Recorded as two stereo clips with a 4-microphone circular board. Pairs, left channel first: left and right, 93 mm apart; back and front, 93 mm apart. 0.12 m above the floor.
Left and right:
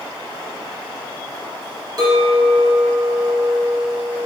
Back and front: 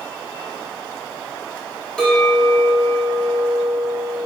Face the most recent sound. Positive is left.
turn(degrees=-105)